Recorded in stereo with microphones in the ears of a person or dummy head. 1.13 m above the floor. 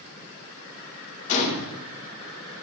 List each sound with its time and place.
1.3 s a gunshot: 40° left (ahead or behind), 1.3 m